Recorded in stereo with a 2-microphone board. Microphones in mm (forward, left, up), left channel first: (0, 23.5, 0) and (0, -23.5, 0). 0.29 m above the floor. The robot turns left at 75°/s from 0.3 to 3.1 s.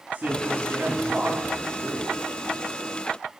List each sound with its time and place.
0.1 s a man speaking: 45° right, 3.5 m; by 2.1 s straight behind, 3.5 m